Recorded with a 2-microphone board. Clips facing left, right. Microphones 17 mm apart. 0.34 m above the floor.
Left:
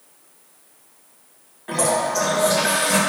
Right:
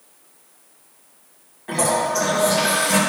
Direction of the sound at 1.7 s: 10° left (ahead or behind).